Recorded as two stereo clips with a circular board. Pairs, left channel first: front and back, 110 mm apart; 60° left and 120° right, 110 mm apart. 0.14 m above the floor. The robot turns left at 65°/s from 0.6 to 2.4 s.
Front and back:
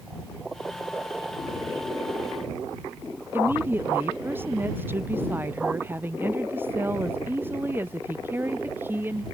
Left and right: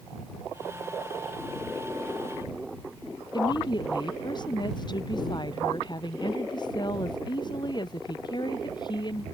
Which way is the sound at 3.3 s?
110° left.